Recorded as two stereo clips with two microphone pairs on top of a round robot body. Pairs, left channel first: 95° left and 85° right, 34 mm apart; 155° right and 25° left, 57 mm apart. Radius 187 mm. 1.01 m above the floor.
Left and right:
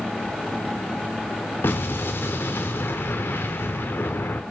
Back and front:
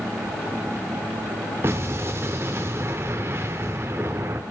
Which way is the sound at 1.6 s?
80° left.